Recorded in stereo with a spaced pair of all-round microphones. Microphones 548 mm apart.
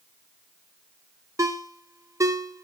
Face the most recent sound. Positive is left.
turn(degrees=-5)  # may be behind; listen again after turning